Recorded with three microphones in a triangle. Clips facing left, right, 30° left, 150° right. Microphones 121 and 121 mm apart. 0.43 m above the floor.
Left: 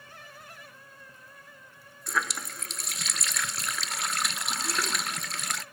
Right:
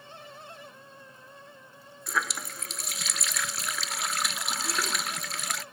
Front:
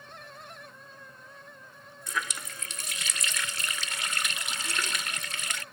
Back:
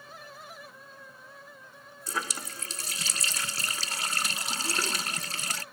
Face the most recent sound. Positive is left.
turn(degrees=180)